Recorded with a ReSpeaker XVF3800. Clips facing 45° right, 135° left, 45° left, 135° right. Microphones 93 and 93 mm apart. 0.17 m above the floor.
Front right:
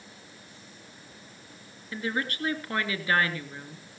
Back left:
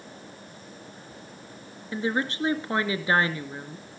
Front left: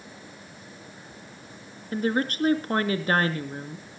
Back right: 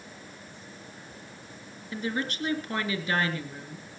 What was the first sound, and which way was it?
A woman speaking, 75° left.